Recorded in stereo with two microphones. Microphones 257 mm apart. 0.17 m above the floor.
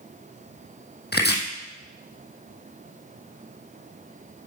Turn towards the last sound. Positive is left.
turn(degrees=40)  # may be behind; listen again after turning